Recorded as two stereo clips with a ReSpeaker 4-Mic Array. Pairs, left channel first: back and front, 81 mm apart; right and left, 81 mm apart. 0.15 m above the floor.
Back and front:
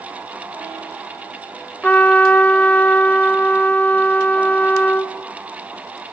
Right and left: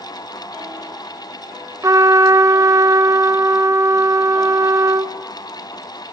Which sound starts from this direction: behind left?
A trumpet, at 1.8 s.